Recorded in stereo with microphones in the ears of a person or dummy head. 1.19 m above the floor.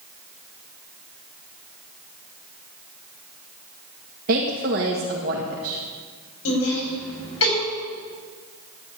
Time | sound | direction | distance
4.3 | a woman speaking | 50° right (ahead or behind) | 1.7 m
6.5 | laughter | 80° left | 5 m